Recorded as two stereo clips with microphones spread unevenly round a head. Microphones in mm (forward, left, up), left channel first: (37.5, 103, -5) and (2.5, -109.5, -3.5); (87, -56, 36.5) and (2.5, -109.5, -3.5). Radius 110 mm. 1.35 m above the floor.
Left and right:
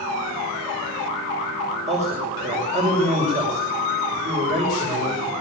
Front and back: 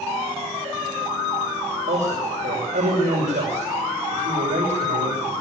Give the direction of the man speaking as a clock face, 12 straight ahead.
5 o'clock.